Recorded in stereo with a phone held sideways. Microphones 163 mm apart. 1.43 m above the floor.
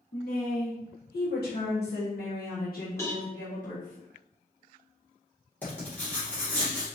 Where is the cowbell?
15° left (ahead or behind), 1.6 m.